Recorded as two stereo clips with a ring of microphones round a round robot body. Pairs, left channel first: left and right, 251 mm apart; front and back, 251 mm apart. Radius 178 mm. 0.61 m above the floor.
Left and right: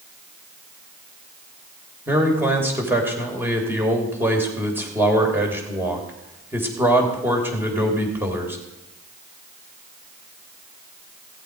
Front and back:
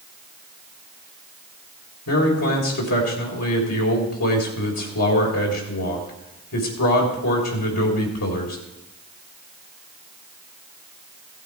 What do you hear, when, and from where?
2.1 s a man speaking: 10° right, 3 m